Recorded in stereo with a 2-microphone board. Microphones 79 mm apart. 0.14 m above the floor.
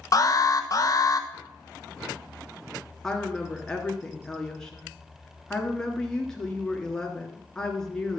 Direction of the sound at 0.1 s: 45° left (ahead or behind).